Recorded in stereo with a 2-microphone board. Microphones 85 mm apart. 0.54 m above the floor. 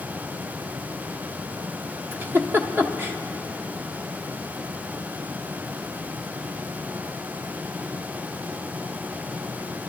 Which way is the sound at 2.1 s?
25° right (ahead or behind).